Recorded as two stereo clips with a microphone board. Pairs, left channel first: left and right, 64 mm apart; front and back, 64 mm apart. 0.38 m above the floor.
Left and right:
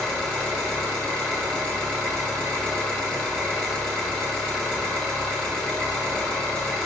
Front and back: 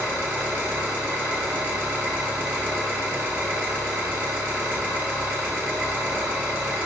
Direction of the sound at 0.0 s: 155° left.